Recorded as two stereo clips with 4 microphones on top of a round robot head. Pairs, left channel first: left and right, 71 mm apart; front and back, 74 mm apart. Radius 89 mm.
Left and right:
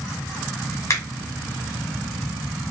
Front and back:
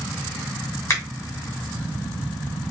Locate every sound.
0.9 s a finger snap: 50° left, 1.7 m